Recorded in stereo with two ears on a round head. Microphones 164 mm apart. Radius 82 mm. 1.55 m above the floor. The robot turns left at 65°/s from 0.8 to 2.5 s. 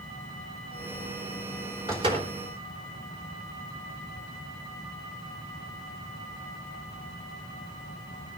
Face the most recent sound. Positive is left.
turn(degrees=-55)